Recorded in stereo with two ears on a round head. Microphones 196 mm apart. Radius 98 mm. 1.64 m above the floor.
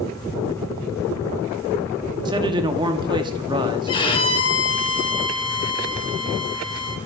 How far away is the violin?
About 1.2 m.